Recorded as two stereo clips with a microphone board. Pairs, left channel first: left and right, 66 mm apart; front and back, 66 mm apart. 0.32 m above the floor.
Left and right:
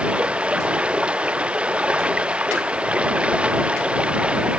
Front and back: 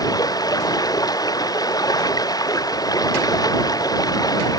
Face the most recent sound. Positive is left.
turn(degrees=-20)